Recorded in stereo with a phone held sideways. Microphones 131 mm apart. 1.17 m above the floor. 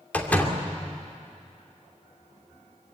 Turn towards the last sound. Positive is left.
turn(degrees=10)  # may be behind; listen again after turning